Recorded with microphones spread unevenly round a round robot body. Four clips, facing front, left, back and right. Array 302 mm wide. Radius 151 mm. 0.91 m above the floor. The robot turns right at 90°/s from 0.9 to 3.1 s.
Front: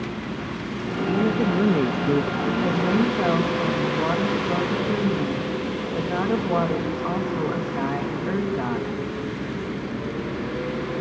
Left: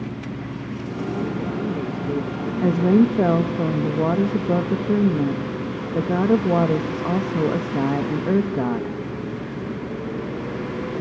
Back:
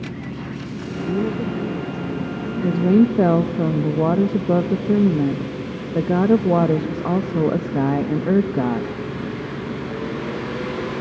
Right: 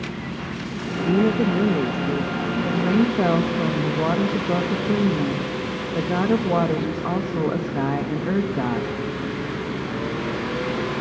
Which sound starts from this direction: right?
A woman speaking, at 0.8 s.